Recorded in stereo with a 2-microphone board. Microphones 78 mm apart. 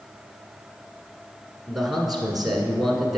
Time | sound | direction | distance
1.7 | a man speaking | centre (ahead or behind) | 1.1 m